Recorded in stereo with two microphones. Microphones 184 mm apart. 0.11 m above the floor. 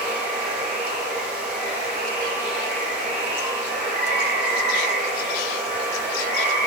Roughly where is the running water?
Right.